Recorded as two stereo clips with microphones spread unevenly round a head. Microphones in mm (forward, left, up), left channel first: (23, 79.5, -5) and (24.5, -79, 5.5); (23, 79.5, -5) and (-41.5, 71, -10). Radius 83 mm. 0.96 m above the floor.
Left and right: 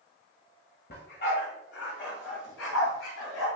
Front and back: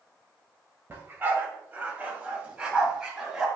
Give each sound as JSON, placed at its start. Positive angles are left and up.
{"t": 0.9, "sound": "a dog barking", "azimuth_deg": 130, "distance_m": 2.0}